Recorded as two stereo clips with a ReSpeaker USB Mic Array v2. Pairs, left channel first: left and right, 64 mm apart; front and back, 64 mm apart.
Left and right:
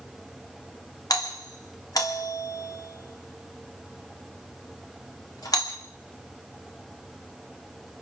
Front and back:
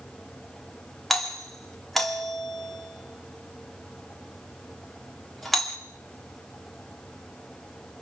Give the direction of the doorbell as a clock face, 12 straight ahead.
9 o'clock.